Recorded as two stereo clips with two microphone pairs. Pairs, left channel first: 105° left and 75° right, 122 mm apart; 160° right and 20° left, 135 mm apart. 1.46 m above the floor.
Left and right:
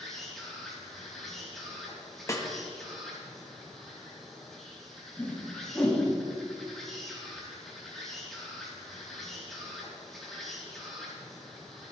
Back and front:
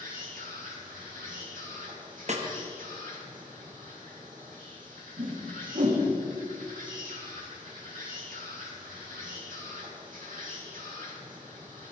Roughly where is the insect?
Ahead.